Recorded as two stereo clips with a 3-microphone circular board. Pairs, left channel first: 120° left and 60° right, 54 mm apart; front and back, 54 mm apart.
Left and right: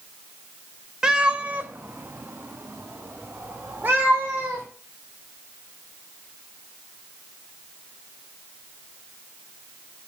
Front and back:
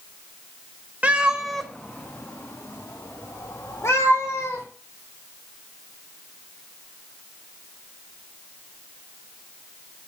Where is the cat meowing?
130° right, 1.0 m; by 4.7 s 5° right, 3.5 m.